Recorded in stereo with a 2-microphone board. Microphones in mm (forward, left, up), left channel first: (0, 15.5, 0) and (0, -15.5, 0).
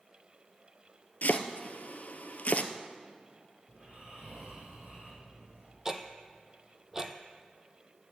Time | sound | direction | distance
1.2 | chopping | 60° left (ahead or behind) | 0.7 m
3.7 | snoring | 60° right (ahead or behind) | 3.5 m
5.8 | ticking | 20° right (ahead or behind) | 0.8 m